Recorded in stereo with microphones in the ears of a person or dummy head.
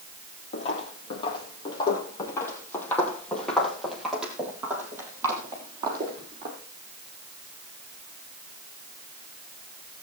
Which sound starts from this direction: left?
Footsteps, at 0.5 s.